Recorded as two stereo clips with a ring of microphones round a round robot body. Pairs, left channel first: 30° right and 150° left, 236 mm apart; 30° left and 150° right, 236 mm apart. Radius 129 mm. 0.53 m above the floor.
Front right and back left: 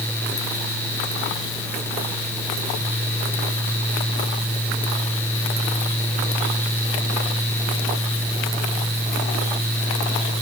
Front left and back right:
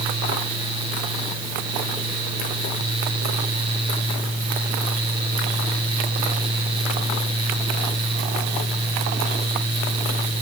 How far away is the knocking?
I don't hear knocking.